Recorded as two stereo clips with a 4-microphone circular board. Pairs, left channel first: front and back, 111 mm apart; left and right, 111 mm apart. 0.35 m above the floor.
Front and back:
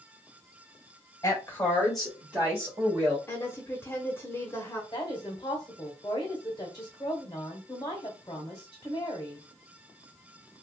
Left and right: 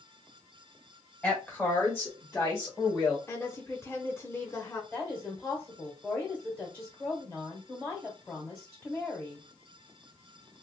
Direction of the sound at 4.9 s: 15° left.